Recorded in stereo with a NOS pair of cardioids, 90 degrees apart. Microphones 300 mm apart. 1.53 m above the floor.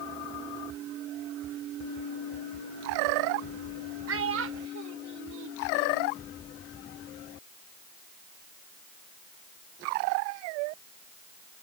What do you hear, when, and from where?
4.1 s a child speaking: 45° right; by 6.1 s 80° right